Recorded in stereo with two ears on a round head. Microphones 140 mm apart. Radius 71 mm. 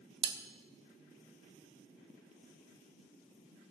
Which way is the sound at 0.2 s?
30° right (ahead or behind).